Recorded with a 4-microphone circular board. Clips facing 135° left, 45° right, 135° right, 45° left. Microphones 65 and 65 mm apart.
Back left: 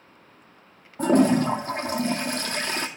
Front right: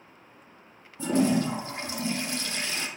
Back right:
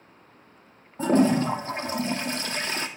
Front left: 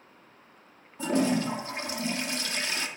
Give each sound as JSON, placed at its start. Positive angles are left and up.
{"t": 1.0, "sound": "a toilet flushing", "azimuth_deg": 175, "distance_m": 0.8}